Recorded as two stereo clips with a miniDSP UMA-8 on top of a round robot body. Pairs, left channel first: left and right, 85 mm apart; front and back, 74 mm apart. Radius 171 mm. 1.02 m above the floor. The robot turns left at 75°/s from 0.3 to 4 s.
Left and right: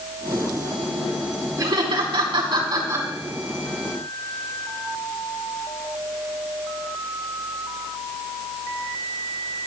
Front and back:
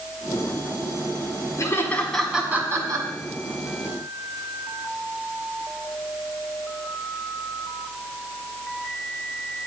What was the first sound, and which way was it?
Laughter, 45° right.